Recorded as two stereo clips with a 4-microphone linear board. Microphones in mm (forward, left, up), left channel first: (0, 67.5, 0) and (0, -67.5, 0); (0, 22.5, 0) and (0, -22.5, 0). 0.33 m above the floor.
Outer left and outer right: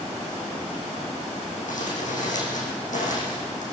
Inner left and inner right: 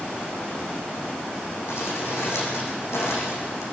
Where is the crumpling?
85° left, 10 m.